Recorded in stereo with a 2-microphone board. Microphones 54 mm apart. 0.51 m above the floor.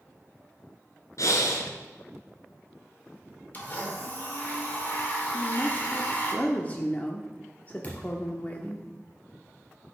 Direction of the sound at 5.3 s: 30° left (ahead or behind).